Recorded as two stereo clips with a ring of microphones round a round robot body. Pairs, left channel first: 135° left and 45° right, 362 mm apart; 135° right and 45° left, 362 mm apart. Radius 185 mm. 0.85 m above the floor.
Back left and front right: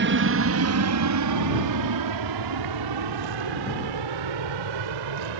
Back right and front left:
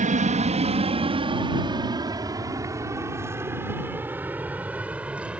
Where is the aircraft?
10° right; by 5.4 s 40° right.